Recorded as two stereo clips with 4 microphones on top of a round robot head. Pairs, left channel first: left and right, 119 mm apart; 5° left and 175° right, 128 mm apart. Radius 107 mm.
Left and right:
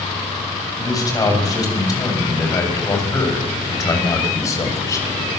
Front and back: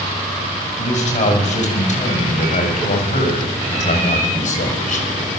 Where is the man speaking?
30° left, 8.5 m; by 5.0 s 25° left, 6.5 m.